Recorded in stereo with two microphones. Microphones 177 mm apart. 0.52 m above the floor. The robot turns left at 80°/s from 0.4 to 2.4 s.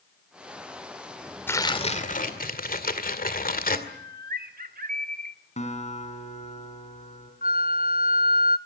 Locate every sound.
1.5 s tearing paper: 165° left, 2 m; by 3.8 s 90° left, 2 m
3.9 s a bird: 55° right (ahead or behind), 1.2 m
5.6 s a guitar: 40° left (ahead or behind), 4 m
7.4 s a flute: 55° left (ahead or behind), 0.6 m